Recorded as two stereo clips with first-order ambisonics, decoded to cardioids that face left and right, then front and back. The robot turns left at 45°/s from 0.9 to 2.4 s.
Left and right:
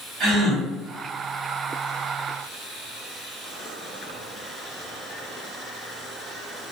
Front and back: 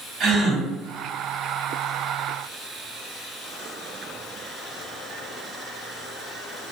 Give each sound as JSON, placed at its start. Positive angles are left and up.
{"t": 0.2, "sound": "a gasp", "azimuth_deg": -135, "distance_m": 1.2}